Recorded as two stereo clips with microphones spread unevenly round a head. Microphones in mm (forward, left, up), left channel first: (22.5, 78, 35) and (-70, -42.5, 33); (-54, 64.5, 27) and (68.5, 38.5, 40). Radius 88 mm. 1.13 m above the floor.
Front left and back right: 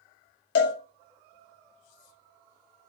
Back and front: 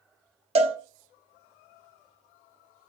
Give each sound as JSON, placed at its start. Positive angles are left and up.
{"t": 0.6, "sound": "a cowbell", "azimuth_deg": 25, "distance_m": 0.6}